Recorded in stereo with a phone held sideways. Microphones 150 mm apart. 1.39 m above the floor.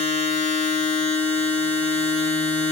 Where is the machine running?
45° left (ahead or behind), 0.8 m.